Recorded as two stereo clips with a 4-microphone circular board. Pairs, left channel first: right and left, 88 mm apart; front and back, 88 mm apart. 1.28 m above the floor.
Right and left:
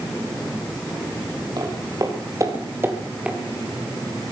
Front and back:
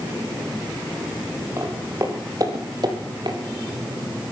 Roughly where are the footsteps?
Behind left.